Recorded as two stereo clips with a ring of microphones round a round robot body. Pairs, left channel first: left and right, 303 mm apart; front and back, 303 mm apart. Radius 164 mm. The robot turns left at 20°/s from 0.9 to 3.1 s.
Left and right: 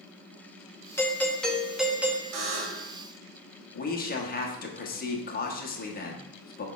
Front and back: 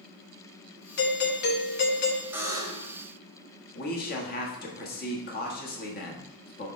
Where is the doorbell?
15° left, 1.0 m; by 2.2 s 10° right, 1.0 m.